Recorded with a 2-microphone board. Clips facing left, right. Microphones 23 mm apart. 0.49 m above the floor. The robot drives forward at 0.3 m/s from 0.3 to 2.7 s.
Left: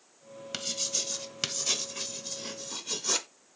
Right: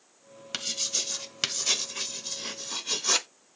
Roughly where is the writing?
Centre.